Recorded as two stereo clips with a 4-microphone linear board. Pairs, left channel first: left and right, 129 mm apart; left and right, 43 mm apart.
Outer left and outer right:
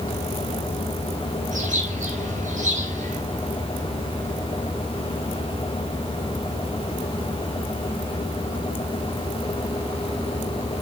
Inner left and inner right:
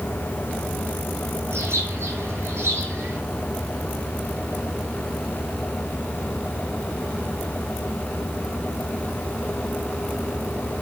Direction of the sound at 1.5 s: 80° right.